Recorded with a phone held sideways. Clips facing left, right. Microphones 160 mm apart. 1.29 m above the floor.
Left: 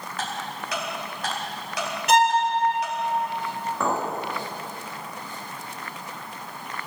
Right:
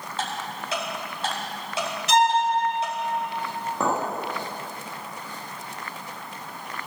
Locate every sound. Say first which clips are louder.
0.2 s ticking: right 1 dB; 25° right (ahead or behind), 3 m
2.1 s a violin: left 1 dB; 55° left (ahead or behind), 1.6 m
3.8 s a clink: right 1 dB; 20° right (ahead or behind), 1.7 m